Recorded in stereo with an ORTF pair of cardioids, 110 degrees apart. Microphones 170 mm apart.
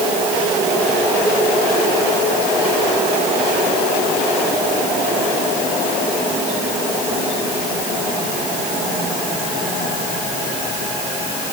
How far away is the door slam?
No door slam in this recording.